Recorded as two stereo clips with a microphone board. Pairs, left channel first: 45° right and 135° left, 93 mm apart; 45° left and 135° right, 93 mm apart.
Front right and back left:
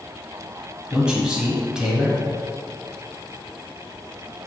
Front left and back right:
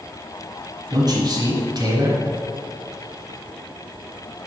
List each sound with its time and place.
0.9 s a man speaking: 145° right, 1.5 m